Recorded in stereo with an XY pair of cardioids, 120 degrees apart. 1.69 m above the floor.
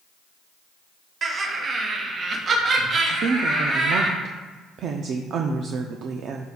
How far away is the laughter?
About 1.4 m.